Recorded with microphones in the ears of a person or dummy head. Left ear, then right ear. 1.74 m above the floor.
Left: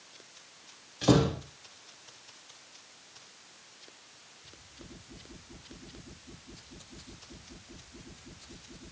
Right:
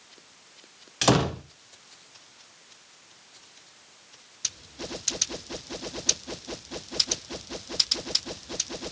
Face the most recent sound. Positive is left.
turn(degrees=-40)  # may be behind; listen again after turning